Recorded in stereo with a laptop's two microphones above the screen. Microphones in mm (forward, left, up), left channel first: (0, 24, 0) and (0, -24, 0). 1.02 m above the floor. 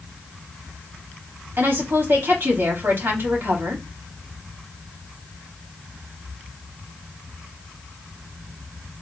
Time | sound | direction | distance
1.6 | a woman speaking | 55° right (ahead or behind) | 3 m